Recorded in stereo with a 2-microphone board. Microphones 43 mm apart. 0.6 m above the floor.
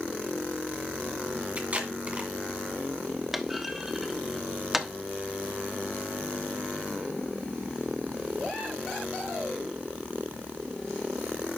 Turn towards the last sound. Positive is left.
turn(degrees=-5)  # may be behind; listen again after turning